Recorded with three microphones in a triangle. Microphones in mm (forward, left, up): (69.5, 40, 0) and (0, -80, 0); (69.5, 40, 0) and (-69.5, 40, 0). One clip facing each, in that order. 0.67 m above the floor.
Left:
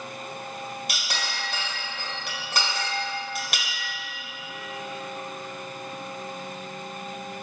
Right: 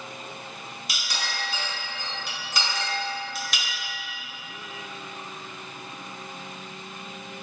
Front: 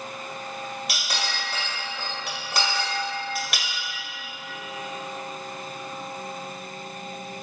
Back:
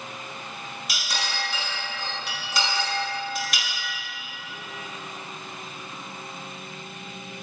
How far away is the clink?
About 1.5 m.